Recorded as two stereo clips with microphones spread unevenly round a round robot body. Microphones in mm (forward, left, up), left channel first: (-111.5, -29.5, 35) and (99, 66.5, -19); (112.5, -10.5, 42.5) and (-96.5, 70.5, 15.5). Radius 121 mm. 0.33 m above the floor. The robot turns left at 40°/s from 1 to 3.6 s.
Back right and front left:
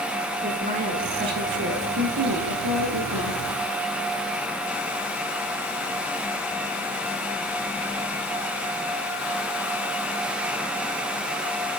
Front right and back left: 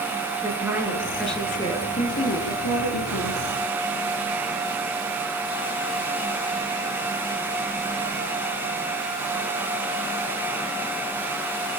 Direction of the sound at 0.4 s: 80° left.